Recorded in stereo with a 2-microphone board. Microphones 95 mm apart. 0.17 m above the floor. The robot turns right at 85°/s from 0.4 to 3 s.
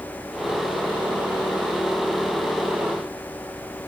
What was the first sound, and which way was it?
Only background noise.